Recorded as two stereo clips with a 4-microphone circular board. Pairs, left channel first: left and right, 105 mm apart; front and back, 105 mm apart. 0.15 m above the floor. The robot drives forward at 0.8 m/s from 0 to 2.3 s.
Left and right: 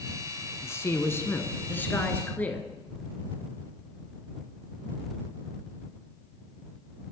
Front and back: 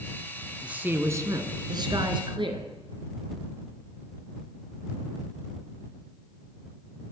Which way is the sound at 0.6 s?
115° left.